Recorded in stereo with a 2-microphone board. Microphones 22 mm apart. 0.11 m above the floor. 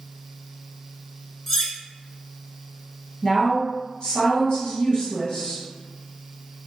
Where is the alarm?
I don't hear an alarm.